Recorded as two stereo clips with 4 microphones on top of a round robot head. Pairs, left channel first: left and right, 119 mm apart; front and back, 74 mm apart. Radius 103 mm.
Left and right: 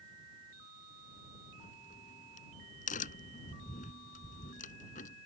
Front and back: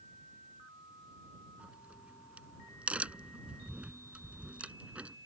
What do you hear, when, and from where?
1.6 s a crack: 110° left